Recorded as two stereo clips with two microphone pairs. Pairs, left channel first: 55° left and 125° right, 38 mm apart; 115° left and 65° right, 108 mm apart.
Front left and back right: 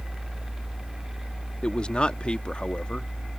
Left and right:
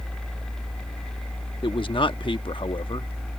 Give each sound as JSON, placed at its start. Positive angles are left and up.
{"t": 1.6, "sound": "a man speaking", "azimuth_deg": 110}